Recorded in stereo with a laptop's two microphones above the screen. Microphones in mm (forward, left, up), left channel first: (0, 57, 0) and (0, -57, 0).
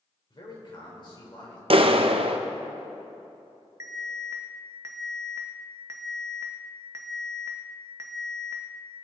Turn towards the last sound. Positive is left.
turn(degrees=-25)  # may be behind; listen again after turning